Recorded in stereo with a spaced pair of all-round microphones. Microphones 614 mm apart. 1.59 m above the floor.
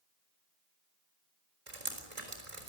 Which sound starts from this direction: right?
Dripping, at 1.7 s.